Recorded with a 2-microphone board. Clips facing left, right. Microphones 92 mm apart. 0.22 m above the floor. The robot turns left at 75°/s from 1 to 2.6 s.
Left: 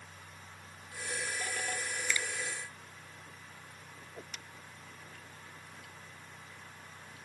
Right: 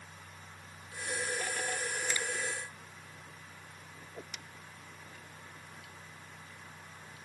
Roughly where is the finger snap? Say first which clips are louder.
Left 3 dB; right.